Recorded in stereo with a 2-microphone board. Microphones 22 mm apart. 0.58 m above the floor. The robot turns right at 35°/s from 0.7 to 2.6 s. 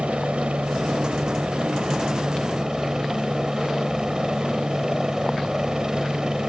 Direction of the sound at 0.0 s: 100° right.